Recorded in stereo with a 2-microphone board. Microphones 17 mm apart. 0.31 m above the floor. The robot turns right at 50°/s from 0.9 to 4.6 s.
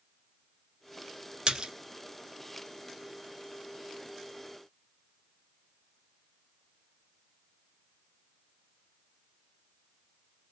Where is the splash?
55° right (ahead or behind), 0.7 m; by 1.7 s 70° right (ahead or behind), 0.7 m.